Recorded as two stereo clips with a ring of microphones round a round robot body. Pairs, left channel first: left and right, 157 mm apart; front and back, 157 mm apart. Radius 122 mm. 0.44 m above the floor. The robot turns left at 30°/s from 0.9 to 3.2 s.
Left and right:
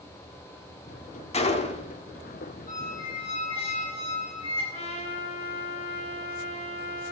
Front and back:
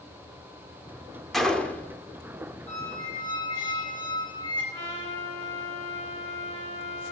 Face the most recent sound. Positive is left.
turn(degrees=45)